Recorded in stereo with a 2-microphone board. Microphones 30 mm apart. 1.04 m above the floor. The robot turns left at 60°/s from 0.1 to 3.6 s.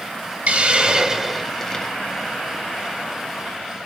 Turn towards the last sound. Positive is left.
turn(degrees=50)